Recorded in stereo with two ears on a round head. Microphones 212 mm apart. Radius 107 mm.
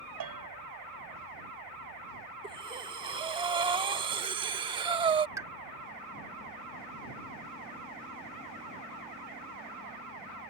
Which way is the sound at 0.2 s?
75° right (ahead or behind).